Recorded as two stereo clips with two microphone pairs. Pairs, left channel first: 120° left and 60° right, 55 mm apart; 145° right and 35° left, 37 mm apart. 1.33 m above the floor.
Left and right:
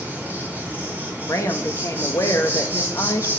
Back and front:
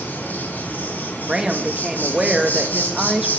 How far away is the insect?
About 5.5 m.